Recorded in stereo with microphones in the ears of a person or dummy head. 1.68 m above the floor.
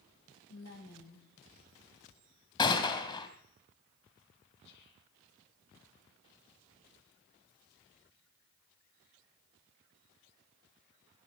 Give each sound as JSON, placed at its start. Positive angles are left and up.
{"t": 0.5, "sound": "a woman speaking", "side_deg": 85, "distance_m": 7.0}
{"t": 2.6, "sound": "a gunshot", "side_deg": 25, "distance_m": 2.5}
{"t": 4.6, "sound": "whispering", "side_deg": 60, "distance_m": 1.4}